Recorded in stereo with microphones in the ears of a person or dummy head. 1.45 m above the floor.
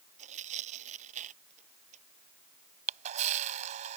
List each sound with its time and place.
0.2 s tearing paper: 40° right (ahead or behind)
2.9 s a camera shutter: 45° right (ahead or behind)